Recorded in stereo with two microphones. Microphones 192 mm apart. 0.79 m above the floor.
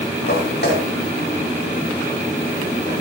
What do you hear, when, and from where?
0.3 s footsteps: 60° left (ahead or behind), 8 m; by 3.0 s 45° left (ahead or behind), 6.5 m